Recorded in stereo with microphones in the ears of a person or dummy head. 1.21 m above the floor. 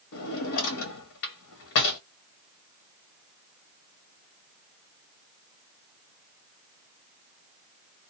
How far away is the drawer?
About 1.0 m.